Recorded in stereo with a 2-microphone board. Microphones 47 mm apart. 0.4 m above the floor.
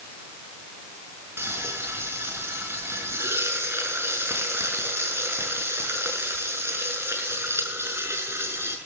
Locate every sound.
1.4 s frying: 65° right (ahead or behind), 5.5 m